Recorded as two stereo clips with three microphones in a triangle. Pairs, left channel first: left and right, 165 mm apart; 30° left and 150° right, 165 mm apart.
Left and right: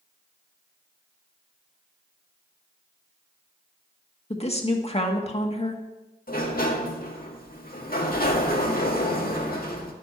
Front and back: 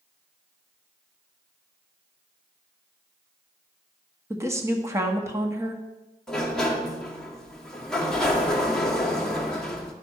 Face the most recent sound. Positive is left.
turn(degrees=115)